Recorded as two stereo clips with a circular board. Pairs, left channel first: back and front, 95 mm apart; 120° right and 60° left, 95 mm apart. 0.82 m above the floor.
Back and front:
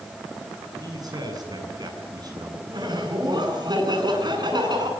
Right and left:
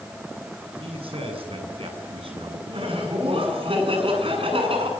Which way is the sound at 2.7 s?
45° left.